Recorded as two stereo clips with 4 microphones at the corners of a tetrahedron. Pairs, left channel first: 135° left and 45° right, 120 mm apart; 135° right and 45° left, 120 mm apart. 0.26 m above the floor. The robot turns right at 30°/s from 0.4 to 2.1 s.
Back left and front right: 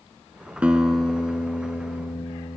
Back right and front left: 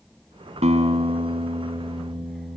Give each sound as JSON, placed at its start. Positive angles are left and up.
{"t": 0.6, "sound": "a guitar", "azimuth_deg": 35, "distance_m": 2.0}